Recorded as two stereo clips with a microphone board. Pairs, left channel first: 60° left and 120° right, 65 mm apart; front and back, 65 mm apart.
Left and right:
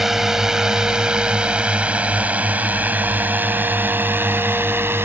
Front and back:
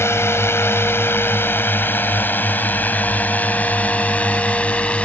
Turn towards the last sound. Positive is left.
turn(degrees=-70)